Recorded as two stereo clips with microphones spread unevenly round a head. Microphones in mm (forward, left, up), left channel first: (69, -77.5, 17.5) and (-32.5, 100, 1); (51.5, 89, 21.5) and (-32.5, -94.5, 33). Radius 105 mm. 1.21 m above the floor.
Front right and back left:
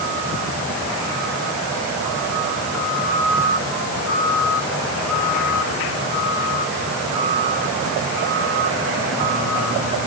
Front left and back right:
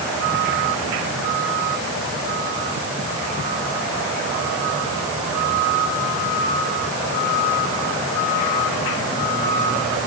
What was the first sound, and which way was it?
Only background noise.